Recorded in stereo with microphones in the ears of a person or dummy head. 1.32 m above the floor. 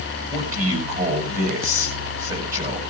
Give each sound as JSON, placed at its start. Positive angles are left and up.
{"t": 0.3, "sound": "a man speaking", "side_deg": -40, "distance_m": 6.5}